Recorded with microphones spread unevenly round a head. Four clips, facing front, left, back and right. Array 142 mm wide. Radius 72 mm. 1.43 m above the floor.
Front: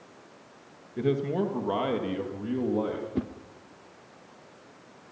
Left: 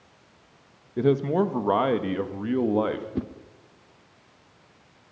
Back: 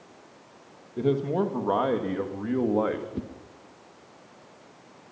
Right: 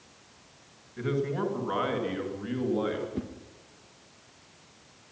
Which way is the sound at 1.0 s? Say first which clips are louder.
Left 8 dB, back 2 dB; 115° left.